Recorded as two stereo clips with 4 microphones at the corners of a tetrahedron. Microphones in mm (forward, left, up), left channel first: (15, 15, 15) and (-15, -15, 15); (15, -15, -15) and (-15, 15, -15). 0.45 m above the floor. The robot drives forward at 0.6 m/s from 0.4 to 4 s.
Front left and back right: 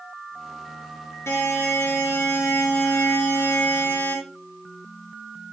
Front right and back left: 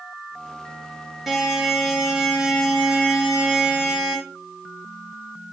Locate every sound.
1.3 s a buzzer: 55° left, 6 m; by 4.2 s 70° left, 5.5 m